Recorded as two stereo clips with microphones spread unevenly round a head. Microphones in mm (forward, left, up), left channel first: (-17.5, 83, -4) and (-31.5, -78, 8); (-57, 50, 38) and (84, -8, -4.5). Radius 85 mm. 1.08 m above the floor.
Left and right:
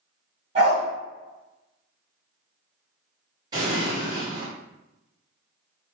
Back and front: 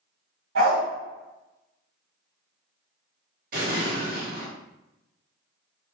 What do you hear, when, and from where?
0.6 s a dog barking: 45° right, 1.7 m
3.5 s an explosion: 25° right, 1.6 m